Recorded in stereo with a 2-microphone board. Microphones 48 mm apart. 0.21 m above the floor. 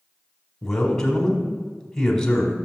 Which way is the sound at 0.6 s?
10° left (ahead or behind).